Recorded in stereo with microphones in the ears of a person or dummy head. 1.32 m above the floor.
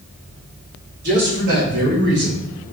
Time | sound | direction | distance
1.0 | a man speaking | 50° right (ahead or behind) | 3 m